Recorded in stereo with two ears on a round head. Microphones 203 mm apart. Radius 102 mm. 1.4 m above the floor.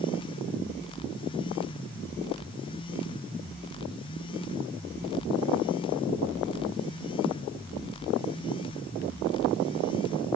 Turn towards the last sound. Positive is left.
No sound to turn to.